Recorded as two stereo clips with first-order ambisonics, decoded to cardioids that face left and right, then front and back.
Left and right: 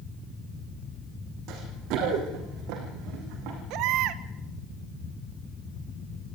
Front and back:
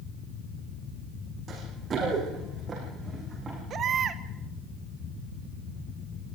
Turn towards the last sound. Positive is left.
turn(degrees=-120)